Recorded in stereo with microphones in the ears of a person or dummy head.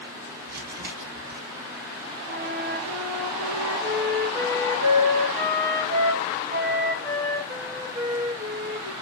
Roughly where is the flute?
Right.